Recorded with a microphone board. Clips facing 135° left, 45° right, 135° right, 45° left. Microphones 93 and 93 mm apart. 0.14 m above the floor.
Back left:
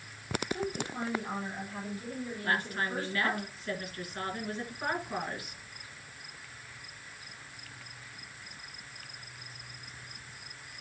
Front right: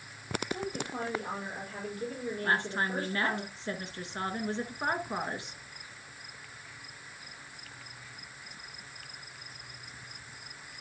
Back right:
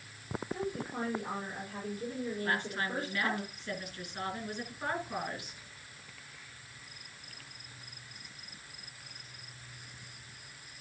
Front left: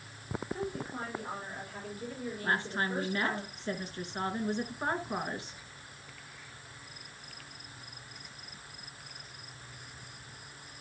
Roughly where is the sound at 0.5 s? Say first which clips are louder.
Back left 1 dB, back right 2 dB; right.